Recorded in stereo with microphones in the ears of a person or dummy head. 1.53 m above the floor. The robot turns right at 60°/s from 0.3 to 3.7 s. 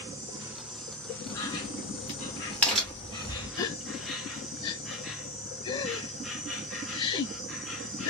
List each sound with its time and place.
0.0 s an insect: 25° right, 1.8 m; by 8.1 s straight behind, 1.8 m
1.3 s a crack: 70° left (ahead or behind), 1.8 m; by 3.5 s 40° right (ahead or behind), 1.8 m
3.6 s a gasp: 25° left (ahead or behind), 0.6 m; by 8.1 s 30° left (ahead or behind), 0.6 m